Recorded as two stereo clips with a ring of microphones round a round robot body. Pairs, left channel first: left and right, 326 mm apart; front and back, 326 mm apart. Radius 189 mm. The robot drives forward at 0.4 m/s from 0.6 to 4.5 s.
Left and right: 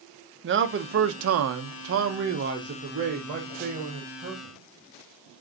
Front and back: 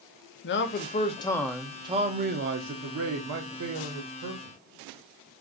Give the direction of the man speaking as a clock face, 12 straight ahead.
2 o'clock.